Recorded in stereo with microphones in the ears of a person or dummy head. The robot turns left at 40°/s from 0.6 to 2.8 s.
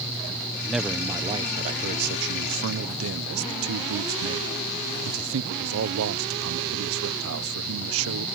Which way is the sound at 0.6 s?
Straight ahead.